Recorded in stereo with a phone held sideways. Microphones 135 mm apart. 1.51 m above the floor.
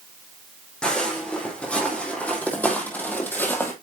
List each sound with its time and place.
0.8 s footsteps: 5° left (ahead or behind), 4 m; by 3.7 s 15° left (ahead or behind), 2.5 m